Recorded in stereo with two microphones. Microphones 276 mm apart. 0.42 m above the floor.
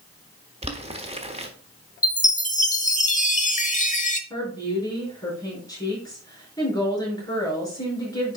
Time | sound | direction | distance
0.6 | boiling | 20° right (ahead or behind) | 1.2 m
2.0 | a chime | 25° left (ahead or behind) | 0.9 m
4.3 | a woman speaking | 15° left (ahead or behind) | 5.5 m